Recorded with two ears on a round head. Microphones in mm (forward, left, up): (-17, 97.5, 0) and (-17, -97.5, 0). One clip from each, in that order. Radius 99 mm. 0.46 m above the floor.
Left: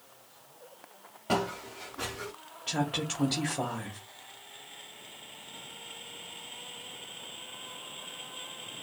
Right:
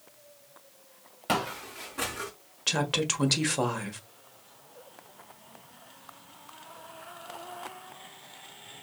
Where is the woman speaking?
60° right (ahead or behind), 1.5 m.